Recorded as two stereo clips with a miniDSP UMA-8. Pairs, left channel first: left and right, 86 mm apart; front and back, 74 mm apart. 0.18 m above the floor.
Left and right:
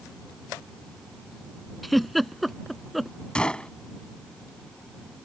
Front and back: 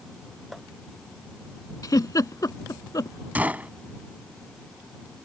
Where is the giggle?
Straight ahead.